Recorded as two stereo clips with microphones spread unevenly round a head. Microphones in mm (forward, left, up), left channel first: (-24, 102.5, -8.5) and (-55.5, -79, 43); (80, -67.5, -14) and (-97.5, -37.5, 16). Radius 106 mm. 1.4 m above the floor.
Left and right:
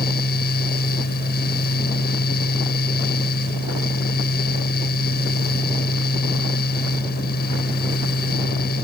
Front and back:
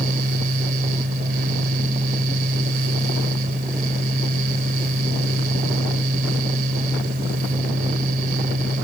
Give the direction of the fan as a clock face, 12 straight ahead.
8 o'clock.